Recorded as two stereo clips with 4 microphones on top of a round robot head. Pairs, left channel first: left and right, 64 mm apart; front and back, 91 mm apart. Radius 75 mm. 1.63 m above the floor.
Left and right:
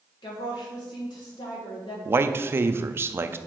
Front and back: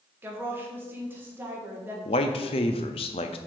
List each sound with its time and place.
0.2 s a woman speaking: 115° left, 1.7 m
2.0 s a man speaking: 35° right, 0.5 m